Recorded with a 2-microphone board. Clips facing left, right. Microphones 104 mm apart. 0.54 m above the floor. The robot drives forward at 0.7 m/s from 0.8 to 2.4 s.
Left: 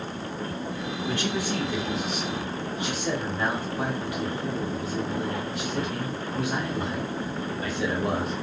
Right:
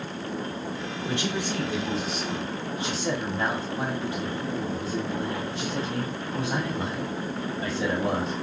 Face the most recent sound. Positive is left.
turn(degrees=-30)  # may be behind; listen again after turning